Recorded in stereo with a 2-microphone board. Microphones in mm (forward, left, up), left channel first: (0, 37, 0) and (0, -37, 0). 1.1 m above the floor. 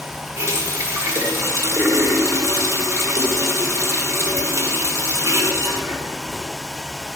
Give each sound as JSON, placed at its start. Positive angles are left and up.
{"t": 0.4, "sound": "a running tap", "side_deg": -45, "distance_m": 1.9}